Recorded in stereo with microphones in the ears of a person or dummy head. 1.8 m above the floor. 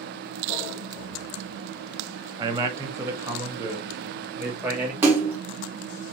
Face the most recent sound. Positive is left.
turn(degrees=-10)  # may be behind; listen again after turning